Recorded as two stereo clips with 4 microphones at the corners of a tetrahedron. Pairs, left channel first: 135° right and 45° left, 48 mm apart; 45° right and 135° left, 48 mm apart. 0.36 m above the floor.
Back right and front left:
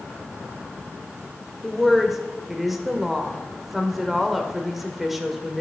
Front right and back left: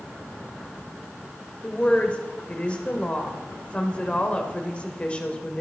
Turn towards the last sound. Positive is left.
turn(degrees=-40)